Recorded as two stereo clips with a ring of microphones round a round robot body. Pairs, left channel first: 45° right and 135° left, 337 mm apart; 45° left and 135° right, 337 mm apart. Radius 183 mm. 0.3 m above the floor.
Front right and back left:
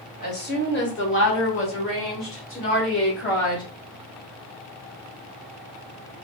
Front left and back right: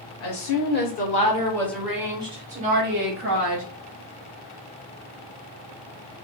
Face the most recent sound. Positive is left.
turn(degrees=-100)